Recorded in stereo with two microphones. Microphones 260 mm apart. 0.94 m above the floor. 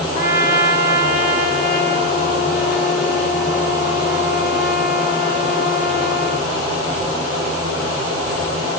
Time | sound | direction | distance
0.1 | a trumpet | 35° left (ahead or behind) | 0.6 m